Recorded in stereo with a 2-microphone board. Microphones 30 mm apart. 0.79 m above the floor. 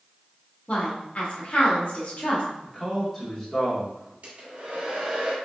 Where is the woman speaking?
45° left (ahead or behind), 1.3 m.